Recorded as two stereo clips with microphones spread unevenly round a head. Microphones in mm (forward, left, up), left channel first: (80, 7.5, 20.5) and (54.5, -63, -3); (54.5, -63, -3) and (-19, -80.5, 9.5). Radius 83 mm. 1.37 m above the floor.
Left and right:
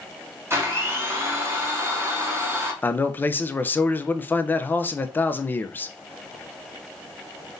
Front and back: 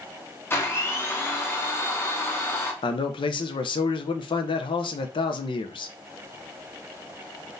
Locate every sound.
0.5 s a blender: 50° right, 1.1 m
2.8 s a man speaking: 5° left, 0.5 m